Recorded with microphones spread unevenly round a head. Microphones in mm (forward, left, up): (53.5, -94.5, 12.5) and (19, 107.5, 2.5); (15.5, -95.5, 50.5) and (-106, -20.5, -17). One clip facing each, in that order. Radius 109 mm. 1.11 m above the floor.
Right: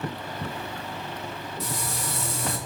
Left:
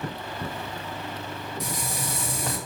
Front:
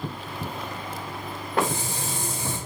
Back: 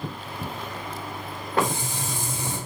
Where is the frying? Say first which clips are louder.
Right 1 dB, even; 25° left, 1.3 m.